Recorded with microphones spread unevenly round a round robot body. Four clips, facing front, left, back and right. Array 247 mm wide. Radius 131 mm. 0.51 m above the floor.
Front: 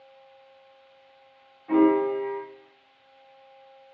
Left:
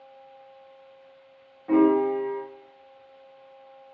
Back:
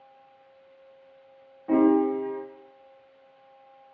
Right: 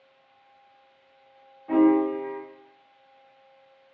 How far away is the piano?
About 1.4 m.